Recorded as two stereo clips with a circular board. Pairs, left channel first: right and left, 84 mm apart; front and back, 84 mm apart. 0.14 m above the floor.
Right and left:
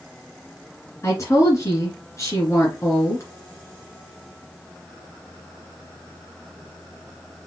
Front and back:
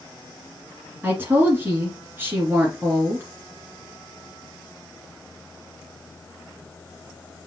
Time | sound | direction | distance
1.0 | a woman speaking | 125° right | 2.0 m